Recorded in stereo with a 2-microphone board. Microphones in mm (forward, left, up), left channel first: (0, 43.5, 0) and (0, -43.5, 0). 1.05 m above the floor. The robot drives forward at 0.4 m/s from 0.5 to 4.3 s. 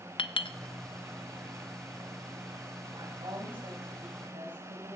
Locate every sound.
0.2 s a clink: 65° left (ahead or behind), 0.6 m
2.9 s a woman speaking: 60° right (ahead or behind), 7.5 m; by 5.0 s 65° right (ahead or behind), 7.5 m